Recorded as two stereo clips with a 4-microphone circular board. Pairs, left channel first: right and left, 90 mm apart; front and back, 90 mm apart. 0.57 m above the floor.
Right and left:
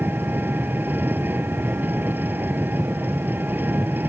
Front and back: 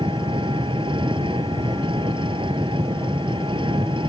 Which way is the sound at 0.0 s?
160° left.